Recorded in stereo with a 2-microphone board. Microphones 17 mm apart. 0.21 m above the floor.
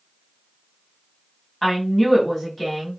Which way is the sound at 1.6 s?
10° left (ahead or behind).